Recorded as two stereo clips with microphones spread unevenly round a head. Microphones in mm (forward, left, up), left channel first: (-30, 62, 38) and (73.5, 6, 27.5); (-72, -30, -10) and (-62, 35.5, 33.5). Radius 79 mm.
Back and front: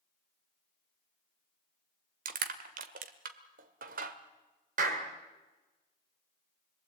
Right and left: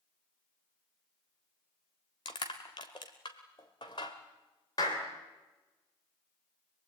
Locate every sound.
2.2 s crushing: 35° right, 1.4 m
4.8 s a clap: 45° right, 2.5 m